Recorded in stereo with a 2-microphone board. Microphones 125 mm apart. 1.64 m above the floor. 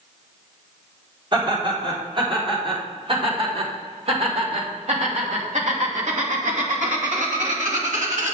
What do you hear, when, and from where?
1.3 s laughter: 40° right (ahead or behind), 4.5 m; by 8.3 s 70° right (ahead or behind), 2.5 m